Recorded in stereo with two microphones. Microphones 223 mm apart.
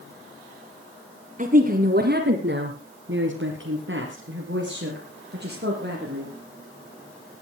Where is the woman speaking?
35° right (ahead or behind), 2.5 m; by 6.3 s 45° right (ahead or behind), 6 m.